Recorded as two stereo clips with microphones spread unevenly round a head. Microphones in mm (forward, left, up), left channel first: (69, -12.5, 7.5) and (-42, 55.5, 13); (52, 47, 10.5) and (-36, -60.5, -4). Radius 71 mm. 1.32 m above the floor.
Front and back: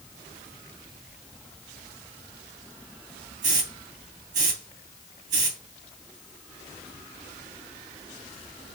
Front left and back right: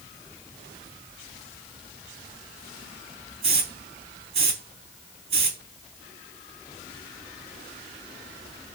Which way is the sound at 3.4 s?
Straight behind.